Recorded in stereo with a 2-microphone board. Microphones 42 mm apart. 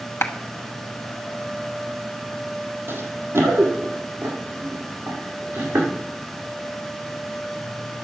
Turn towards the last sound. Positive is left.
turn(degrees=-70)  # may be behind; listen again after turning